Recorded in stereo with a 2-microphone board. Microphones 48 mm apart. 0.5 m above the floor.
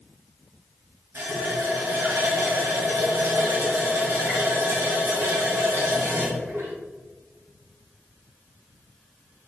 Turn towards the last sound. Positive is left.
turn(degrees=-65)  # may be behind; listen again after turning